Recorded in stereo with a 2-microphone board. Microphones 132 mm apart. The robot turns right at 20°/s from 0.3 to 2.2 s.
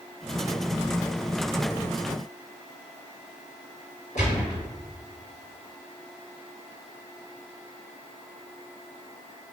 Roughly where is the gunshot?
Left.